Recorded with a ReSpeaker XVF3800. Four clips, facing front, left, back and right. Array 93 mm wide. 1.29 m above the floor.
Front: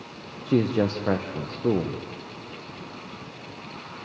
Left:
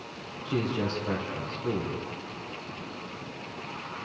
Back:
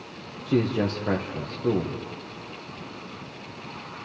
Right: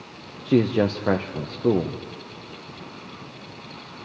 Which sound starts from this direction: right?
A man speaking, at 0.5 s.